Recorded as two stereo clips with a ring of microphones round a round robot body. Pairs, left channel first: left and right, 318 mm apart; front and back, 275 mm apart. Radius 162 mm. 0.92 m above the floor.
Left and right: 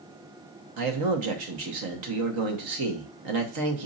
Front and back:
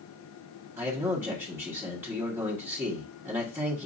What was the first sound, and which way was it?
A man speaking, 95° right.